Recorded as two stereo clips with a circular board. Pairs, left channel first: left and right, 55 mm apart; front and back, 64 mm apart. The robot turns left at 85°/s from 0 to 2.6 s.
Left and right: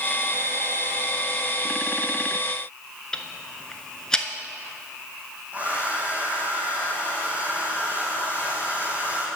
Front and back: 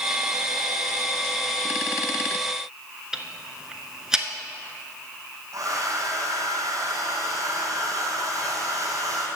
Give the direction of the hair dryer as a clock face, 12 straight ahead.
5 o'clock.